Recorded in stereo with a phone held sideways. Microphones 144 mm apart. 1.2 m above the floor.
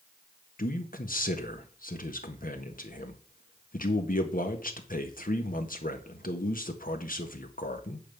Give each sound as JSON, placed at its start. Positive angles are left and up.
{"t": 0.6, "sound": "a man speaking", "side_deg": 75, "distance_m": 1.5}